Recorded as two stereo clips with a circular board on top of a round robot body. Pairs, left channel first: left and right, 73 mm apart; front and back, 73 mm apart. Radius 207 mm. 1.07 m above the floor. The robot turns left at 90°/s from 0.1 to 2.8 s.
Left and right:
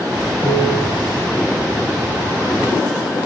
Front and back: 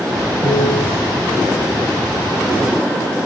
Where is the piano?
30° left, 8.5 m; by 0.9 s 15° right, 8.5 m.